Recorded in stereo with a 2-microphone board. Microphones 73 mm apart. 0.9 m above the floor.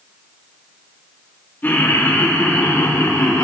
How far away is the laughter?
About 2 m.